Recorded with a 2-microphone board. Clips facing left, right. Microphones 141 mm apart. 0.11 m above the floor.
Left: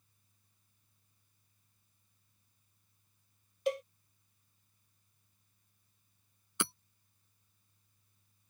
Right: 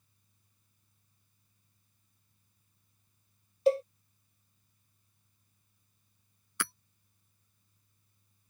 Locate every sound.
3.7 s a cowbell: 35° right (ahead or behind)
6.6 s hammering: 20° left (ahead or behind)